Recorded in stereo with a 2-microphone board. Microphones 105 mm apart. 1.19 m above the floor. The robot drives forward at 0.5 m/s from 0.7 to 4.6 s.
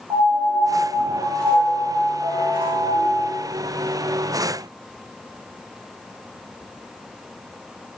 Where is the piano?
45° right (ahead or behind), 2 m; by 3.3 s 65° right (ahead or behind), 1.6 m.